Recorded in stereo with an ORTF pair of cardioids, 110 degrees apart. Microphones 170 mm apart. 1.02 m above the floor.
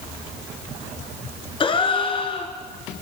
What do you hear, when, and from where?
1.6 s a gasp: 30° left, 4 m